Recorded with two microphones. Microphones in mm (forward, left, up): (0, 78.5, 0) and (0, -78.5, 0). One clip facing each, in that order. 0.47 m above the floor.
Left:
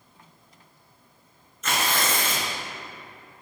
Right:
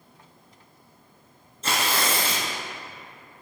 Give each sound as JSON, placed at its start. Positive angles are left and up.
{"t": 1.6, "sound": "tearing paper", "side_deg": -30, "distance_m": 1.8}